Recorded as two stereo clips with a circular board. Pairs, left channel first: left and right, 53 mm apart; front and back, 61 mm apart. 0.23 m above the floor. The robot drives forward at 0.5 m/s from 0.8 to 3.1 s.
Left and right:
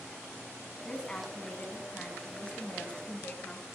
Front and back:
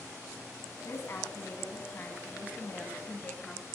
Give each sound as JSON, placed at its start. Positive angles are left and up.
{"t": 0.8, "sound": "a woman speaking", "azimuth_deg": 25, "distance_m": 2.0}